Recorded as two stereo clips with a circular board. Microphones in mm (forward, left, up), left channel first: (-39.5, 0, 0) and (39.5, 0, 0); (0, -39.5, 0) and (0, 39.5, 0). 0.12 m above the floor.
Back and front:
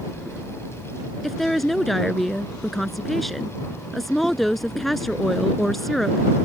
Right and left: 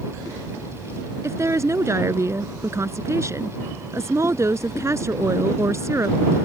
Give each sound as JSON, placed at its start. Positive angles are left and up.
{"t": 1.2, "sound": "a woman speaking", "azimuth_deg": 95}